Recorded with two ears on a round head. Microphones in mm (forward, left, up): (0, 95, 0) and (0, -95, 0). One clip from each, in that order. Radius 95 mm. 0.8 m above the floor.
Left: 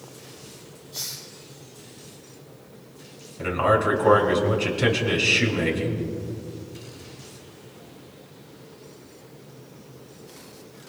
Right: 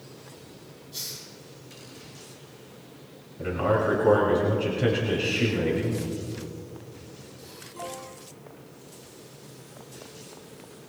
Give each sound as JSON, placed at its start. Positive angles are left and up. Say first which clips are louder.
{"t": 0.9, "sound": "a hiss", "louder": "left 3 dB", "side_deg": -5, "distance_m": 5.0}
{"t": 3.4, "sound": "a man speaking", "louder": "left 4 dB", "side_deg": 50, "distance_m": 5.0}